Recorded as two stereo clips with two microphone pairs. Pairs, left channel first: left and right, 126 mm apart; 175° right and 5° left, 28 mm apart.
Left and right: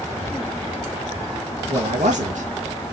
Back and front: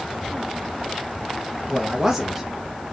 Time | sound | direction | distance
1.7 | a man speaking | 60° right | 1.7 m